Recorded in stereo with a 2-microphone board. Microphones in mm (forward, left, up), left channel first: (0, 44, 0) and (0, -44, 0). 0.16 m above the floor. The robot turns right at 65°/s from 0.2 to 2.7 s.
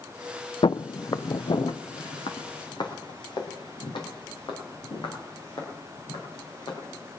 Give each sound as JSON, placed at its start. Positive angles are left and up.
{"t": 0.6, "sound": "footsteps", "side_deg": 70, "distance_m": 0.5}